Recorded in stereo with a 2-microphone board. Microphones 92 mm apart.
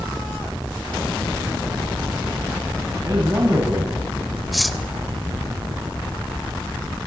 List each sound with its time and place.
3.0 s a man speaking: 30° right (ahead or behind), 3.5 m; by 4.4 s 25° right (ahead or behind), 4.5 m
4.5 s cutlery clinking: centre (ahead or behind), 0.9 m